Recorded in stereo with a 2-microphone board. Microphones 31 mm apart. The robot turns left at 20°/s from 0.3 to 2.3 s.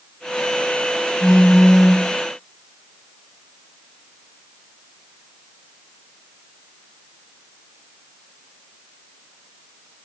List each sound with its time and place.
1.2 s a phone buzzing: 5° left (ahead or behind), 6 m; by 2.0 s 20° left (ahead or behind), 6 m